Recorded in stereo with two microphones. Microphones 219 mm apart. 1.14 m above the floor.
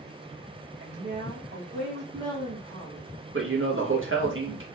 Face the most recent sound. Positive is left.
turn(degrees=-65)  # may be behind; listen again after turning